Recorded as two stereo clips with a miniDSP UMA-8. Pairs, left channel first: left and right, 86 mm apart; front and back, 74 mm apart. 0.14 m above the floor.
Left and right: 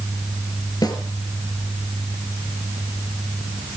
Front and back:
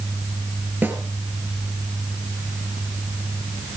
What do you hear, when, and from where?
0.8 s a snare drum: 120° left, 3 m